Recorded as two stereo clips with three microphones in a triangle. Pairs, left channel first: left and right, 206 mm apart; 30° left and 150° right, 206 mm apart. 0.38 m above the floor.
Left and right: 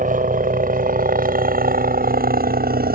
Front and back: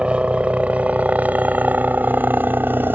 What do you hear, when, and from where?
0.0 s a helicopter: 65° right; by 3.0 s 70° right